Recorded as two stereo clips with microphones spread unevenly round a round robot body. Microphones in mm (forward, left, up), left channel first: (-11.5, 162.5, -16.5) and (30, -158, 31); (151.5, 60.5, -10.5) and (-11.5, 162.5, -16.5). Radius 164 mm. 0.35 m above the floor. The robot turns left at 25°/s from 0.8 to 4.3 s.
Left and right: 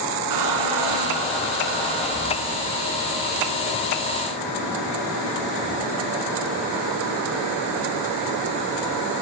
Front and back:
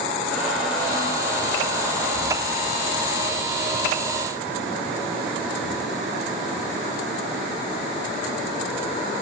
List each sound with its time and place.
0.3 s a squeak: 115° right, 1.7 m; by 2.6 s 160° right, 1.7 m